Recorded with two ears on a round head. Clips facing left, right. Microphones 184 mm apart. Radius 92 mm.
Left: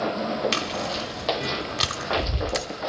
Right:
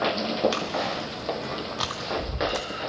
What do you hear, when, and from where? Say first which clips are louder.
0.5 s chewing: even; 30° left (ahead or behind), 1.4 m